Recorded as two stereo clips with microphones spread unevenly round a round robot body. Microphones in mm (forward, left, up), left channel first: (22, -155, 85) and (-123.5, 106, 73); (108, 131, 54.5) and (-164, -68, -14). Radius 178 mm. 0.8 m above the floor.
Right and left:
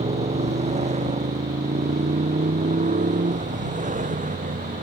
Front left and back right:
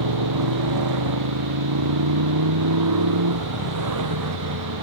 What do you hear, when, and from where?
0.0 s a motorcycle: 170° right; by 4.8 s 175° right